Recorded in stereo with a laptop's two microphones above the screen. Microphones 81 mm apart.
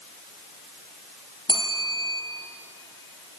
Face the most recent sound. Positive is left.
turn(degrees=-75)  # may be behind; listen again after turning